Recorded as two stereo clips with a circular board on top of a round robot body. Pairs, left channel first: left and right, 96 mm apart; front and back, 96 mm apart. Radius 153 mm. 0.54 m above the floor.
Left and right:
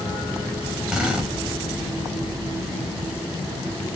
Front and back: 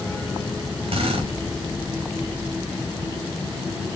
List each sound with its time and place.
0.9 s a drill: 170° right, 4 m